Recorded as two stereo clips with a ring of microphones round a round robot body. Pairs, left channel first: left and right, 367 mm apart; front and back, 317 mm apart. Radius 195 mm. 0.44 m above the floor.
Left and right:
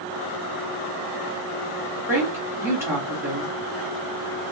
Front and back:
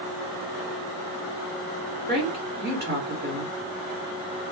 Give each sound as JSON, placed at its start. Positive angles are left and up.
{"t": 2.1, "sound": "a woman speaking", "azimuth_deg": -165, "distance_m": 1.5}